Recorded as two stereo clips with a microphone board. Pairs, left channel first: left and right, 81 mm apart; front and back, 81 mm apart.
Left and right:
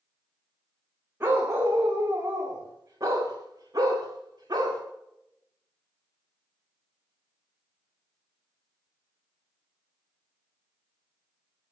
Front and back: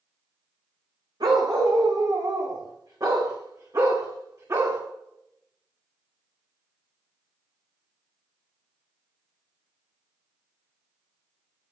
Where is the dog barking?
150° right, 6 m; by 4.8 s 130° right, 8.5 m.